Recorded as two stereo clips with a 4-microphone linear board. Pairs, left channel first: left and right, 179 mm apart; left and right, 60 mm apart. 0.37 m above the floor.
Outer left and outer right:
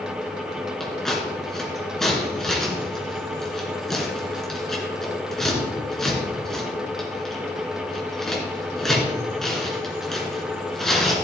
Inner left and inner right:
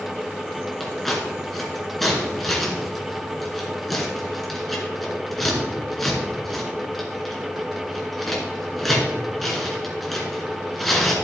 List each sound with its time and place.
0.8 s scissors: 5° left (ahead or behind), 3 m